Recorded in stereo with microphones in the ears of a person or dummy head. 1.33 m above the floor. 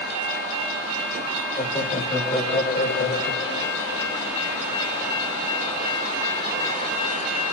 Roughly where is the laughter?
Left.